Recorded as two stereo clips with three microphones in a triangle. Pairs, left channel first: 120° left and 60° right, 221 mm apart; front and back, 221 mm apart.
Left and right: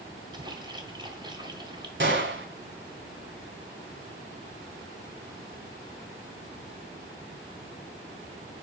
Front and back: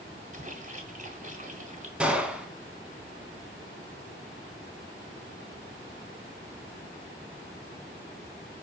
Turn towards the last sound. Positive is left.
turn(degrees=-95)